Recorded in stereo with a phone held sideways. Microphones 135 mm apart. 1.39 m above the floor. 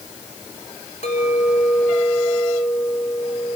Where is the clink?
70° left (ahead or behind), 4.5 m.